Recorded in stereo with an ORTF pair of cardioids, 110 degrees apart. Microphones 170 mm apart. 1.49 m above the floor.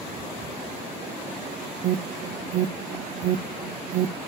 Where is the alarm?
55° right, 0.7 m.